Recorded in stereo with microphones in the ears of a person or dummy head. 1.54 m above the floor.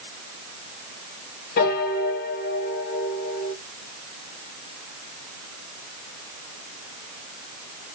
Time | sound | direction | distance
1.6 | a piano | 50° left (ahead or behind) | 1.1 m